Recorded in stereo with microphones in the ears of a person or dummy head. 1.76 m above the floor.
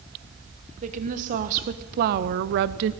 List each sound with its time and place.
0.8 s a woman speaking: 45° right (ahead or behind), 1.4 m; by 2.9 s 50° right (ahead or behind), 0.5 m